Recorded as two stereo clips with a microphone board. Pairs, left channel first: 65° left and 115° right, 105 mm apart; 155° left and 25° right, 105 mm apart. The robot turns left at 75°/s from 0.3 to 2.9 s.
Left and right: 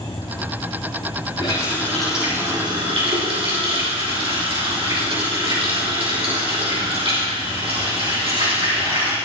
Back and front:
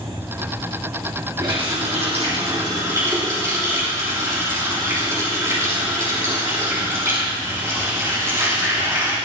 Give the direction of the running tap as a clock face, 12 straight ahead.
11 o'clock.